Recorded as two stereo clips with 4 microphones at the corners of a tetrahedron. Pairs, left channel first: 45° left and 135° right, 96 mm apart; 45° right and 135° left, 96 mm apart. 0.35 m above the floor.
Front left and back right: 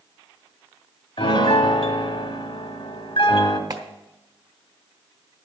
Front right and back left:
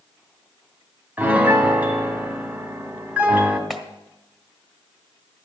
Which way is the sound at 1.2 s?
65° left.